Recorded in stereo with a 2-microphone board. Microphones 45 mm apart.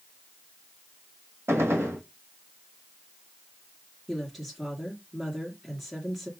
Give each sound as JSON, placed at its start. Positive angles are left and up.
{"t": 1.5, "sound": "a gunshot", "side_deg": -65, "distance_m": 1.3}
{"t": 4.1, "sound": "a woman speaking", "side_deg": -5, "distance_m": 1.3}